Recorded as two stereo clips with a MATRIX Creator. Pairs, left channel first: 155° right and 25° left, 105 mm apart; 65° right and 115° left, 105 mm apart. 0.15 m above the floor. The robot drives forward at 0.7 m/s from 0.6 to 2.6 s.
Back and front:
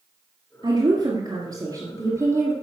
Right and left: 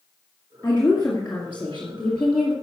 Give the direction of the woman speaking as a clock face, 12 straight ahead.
12 o'clock.